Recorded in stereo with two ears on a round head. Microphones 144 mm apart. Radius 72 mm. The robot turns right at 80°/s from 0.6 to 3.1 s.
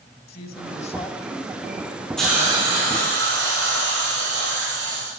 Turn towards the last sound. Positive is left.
turn(degrees=-110)